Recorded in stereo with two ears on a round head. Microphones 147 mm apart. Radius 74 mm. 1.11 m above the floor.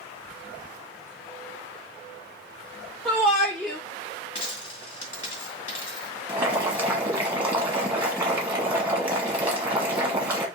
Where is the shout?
5° right (ahead or behind), 1.2 m.